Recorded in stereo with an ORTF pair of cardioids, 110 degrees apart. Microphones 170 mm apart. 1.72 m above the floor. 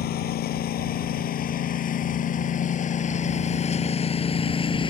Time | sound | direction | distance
0.0 | a lawn mower | 65° left | ?